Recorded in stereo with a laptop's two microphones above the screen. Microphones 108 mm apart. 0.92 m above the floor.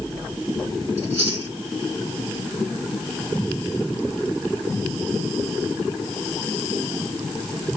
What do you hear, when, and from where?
1.0 s chewing: 70° right (ahead or behind), 2.5 m